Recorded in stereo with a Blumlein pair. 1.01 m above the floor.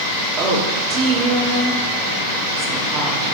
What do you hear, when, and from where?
0.4 s a woman speaking: 30° right, 2.5 m